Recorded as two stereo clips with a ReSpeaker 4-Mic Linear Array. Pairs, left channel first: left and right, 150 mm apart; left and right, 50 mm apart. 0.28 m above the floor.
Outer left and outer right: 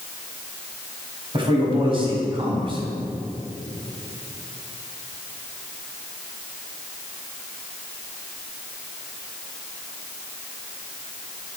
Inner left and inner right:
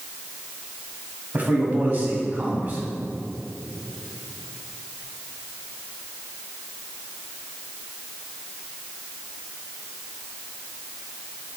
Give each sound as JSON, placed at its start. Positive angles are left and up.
{"t": 1.3, "sound": "a man speaking", "side_deg": -35, "distance_m": 1.5}